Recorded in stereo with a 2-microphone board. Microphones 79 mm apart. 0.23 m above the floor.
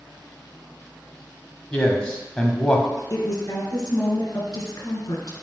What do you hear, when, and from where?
1.7 s a man speaking: 10° left (ahead or behind), 1.0 m
3.1 s a woman speaking: 55° left (ahead or behind), 3 m